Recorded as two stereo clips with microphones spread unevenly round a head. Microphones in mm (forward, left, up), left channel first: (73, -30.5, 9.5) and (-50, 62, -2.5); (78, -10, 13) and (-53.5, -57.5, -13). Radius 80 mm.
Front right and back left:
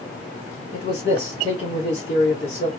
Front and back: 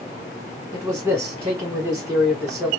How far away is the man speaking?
About 1.5 m.